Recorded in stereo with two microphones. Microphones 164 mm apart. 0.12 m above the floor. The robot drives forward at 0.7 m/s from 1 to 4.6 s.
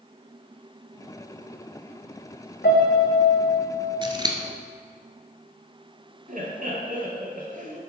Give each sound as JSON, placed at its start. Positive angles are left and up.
{"t": 2.6, "sound": "a piano", "side_deg": 80, "distance_m": 1.9}
{"t": 4.0, "sound": "scissors", "side_deg": -30, "distance_m": 0.9}
{"t": 6.3, "sound": "laughter", "side_deg": -55, "distance_m": 2.0}